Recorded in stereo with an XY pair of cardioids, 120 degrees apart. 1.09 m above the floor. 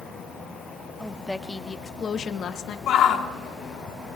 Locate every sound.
1.0 s a woman speaking: 5° left, 1.9 m; by 2.8 s 65° left, 1.4 m
2.9 s a shout: 65° left, 2 m